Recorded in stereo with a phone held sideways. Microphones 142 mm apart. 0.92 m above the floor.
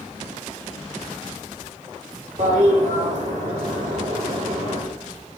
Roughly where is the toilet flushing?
Right.